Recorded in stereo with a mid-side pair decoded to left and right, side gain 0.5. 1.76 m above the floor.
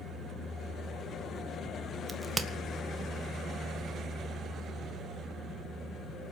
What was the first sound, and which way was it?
A crack, 20° right.